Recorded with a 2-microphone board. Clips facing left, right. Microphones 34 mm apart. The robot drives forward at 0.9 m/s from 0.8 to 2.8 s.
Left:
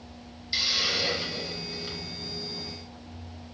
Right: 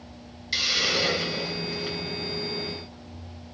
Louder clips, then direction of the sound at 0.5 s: Right 3 dB; 80° right.